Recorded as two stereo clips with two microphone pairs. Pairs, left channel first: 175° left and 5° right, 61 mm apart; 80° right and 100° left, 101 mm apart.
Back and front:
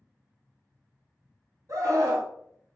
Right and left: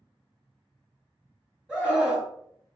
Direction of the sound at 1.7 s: 15° left.